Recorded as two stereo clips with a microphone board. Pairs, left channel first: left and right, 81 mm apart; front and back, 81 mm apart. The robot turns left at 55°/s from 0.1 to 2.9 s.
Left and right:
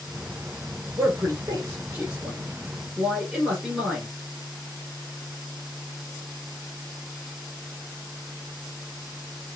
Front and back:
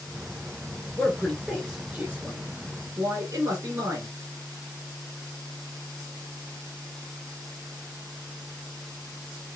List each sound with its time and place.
1.0 s a man speaking: 70° right, 1.8 m; by 4.1 s 175° right, 1.8 m